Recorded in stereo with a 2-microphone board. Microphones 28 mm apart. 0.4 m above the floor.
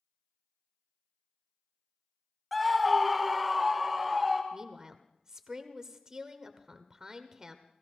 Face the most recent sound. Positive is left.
turn(degrees=-25)  # may be behind; listen again after turning